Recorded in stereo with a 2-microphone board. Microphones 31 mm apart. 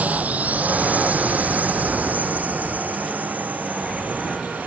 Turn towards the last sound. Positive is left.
turn(degrees=-75)  # may be behind; listen again after turning